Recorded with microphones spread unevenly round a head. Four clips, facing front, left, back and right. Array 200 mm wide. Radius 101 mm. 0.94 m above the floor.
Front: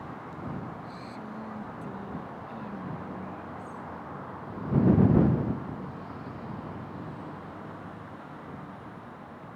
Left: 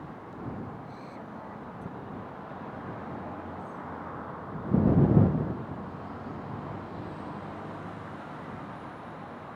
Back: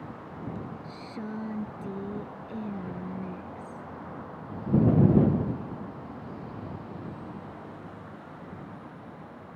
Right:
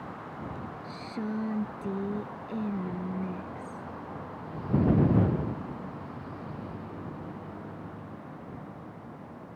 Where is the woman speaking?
120° right.